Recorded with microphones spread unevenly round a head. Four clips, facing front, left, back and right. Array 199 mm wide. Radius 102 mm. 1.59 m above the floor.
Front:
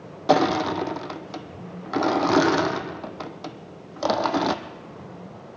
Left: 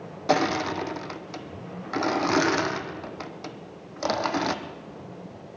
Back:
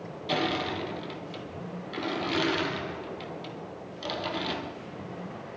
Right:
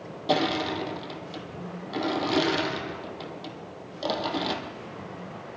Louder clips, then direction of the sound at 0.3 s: Left 2 dB, front 10 dB; 5° left.